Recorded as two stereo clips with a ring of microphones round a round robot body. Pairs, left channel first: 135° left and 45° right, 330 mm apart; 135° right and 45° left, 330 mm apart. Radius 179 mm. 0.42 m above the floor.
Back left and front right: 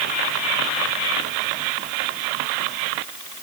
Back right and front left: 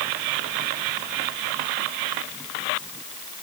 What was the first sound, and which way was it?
Only background noise.